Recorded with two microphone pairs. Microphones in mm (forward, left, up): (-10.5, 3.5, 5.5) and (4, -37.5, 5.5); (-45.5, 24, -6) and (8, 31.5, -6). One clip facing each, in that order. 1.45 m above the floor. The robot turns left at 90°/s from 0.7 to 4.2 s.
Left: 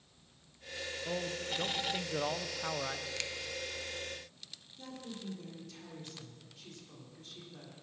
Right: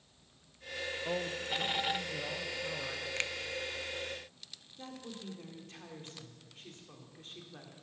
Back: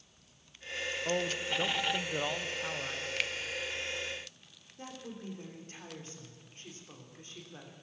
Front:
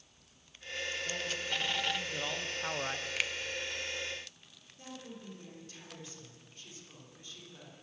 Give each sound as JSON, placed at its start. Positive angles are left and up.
{"t": 1.1, "sound": "a man speaking", "azimuth_deg": -130, "distance_m": 1.0}
{"t": 3.2, "sound": "a finger snap", "azimuth_deg": -75, "distance_m": 0.6}
{"t": 4.8, "sound": "a woman speaking", "azimuth_deg": -120, "distance_m": 3.5}